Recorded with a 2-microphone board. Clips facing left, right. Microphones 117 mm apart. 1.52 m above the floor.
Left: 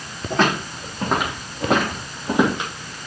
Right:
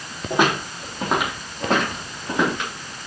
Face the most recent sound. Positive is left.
turn(degrees=20)  # may be behind; listen again after turning